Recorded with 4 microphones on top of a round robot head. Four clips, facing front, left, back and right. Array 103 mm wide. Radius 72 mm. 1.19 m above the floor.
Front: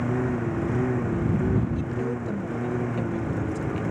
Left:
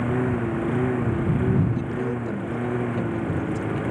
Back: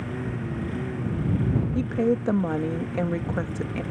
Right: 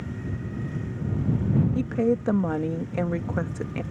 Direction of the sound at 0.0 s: 60° left.